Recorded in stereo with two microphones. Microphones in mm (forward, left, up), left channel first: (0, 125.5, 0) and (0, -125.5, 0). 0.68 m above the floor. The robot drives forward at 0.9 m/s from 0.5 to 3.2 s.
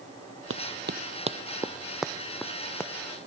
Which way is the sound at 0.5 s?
60° right (ahead or behind).